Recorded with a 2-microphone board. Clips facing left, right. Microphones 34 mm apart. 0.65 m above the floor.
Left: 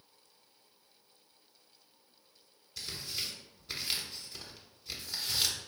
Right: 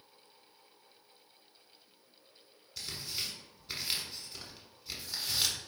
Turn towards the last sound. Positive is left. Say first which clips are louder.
# even
turn(degrees=0)  # may be behind; listen again after turning